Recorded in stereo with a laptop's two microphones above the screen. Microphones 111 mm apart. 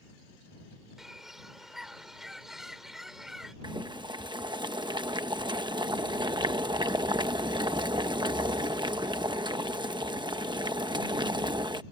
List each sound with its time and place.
1.0 s a bird: 5° right (ahead or behind)
3.6 s boiling: 40° right (ahead or behind)